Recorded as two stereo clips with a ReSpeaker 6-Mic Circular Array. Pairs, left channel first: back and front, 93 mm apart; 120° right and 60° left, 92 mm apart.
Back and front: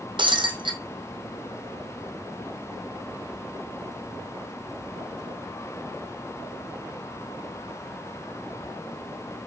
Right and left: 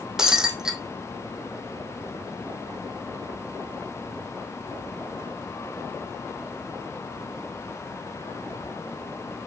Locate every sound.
0.2 s breaking glass: 25° right, 1.7 m